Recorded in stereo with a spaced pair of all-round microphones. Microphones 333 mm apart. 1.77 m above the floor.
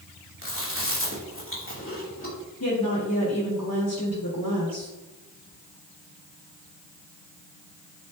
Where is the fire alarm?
I don't hear a fire alarm.